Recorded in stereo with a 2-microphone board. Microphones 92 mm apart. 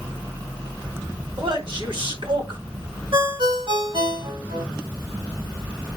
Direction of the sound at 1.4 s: 65° right (ahead or behind).